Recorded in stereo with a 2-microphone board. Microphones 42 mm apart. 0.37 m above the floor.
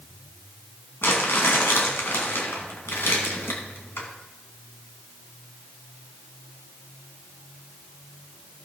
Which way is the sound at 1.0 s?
75° left (ahead or behind).